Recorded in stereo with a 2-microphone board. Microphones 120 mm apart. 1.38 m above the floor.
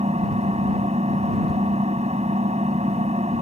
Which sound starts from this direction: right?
An engine running, at 0.0 s.